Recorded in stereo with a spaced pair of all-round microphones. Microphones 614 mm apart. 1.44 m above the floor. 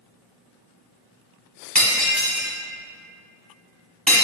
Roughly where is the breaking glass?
Centre.